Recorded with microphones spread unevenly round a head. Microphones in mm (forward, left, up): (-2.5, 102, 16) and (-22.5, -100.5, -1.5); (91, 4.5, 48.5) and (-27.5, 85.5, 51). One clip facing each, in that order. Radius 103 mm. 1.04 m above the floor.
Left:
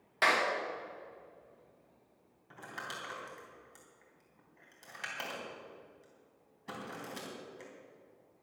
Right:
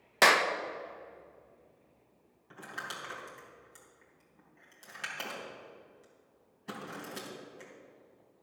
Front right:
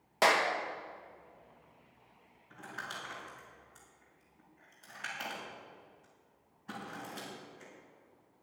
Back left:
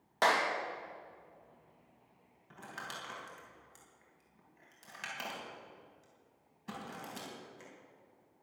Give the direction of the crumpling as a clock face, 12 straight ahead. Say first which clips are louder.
Right 1 dB, front right 1 dB; 6 o'clock.